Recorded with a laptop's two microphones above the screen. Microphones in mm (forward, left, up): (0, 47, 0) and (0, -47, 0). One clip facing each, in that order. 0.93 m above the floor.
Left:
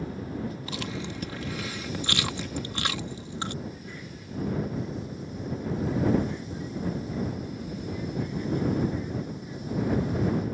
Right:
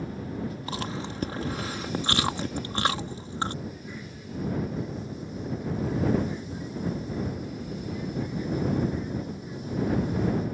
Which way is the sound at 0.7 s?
35° right (ahead or behind).